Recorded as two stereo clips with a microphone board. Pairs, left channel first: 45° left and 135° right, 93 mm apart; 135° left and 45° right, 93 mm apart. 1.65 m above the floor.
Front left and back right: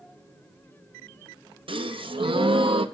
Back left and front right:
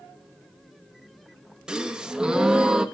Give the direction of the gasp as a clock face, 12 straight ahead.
4 o'clock.